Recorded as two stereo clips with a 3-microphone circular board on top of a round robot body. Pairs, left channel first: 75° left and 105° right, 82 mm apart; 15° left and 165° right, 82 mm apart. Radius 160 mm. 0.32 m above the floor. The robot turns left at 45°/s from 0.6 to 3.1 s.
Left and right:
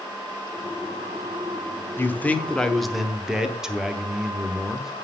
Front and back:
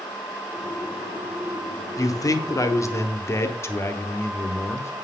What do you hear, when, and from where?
2.0 s a man speaking: 25° left, 1.3 m; by 4.9 s 25° right, 1.3 m